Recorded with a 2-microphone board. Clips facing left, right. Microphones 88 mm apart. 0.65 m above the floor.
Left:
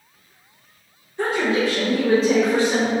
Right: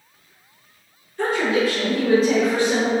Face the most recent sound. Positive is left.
turn(degrees=35)  # may be behind; listen again after turning